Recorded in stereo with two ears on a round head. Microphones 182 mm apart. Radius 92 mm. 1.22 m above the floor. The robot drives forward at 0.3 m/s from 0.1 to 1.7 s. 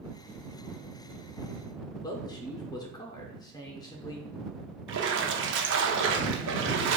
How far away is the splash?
About 0.6 m.